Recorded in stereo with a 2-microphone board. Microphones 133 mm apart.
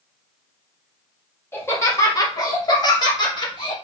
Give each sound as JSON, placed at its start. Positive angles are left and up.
{"t": 1.5, "sound": "laughter", "side_deg": 15, "distance_m": 0.9}